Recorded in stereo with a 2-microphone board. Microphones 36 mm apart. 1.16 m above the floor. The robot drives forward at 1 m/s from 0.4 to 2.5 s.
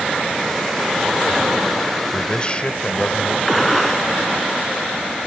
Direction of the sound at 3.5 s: Centre (ahead or behind).